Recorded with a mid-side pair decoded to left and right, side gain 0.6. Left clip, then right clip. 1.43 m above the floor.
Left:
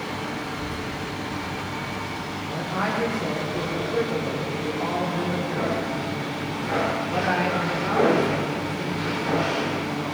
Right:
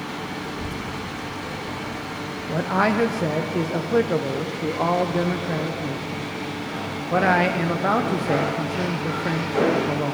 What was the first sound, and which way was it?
A child speaking, 45° right.